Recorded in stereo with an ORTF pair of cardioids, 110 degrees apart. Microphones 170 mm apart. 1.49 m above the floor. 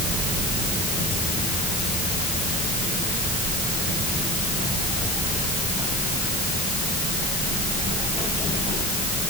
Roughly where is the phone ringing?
I don't hear a phone ringing.